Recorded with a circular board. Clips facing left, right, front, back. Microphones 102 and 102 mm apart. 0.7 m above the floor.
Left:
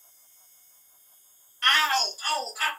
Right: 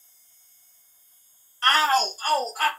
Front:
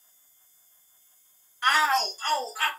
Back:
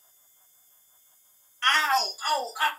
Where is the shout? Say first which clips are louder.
Right 4 dB, front 1 dB; 70° right, 0.6 m; by 2.7 s 115° right, 0.9 m.